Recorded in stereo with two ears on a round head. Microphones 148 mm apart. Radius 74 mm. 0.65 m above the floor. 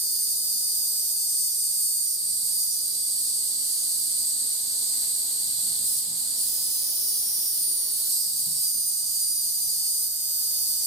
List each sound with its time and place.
0.0 s an insect: centre (ahead or behind), 1.5 m